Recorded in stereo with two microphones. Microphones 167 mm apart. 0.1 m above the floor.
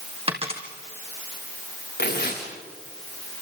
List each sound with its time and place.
0.3 s a dropped coin: 35° right (ahead or behind), 3 m
2.0 s tearing paper: 80° left, 7 m